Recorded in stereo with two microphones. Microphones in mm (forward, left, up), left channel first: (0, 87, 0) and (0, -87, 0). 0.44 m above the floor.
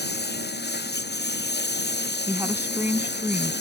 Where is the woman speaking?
10° right (ahead or behind).